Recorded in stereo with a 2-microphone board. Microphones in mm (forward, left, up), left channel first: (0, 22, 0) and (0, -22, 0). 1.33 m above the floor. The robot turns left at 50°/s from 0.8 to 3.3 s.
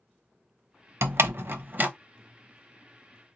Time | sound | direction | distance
1.0 | a door slam | 80° right | 0.7 m